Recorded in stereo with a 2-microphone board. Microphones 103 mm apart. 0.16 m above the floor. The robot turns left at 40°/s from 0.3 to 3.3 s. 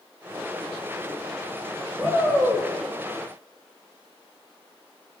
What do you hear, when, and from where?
2.0 s a shout: 15° right (ahead or behind), 6.5 m; by 2.7 s 45° right (ahead or behind), 6.5 m